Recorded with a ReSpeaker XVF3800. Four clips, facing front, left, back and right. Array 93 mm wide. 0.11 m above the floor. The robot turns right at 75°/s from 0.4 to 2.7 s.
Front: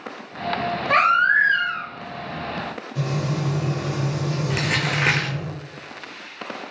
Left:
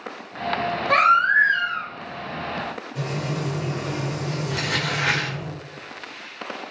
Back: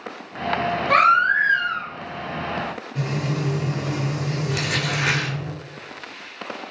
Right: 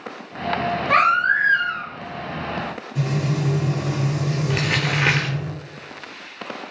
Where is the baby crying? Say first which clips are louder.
Left 1 dB, back 1 dB; 50° right, 1.8 m; by 1.9 s 25° left, 1.8 m.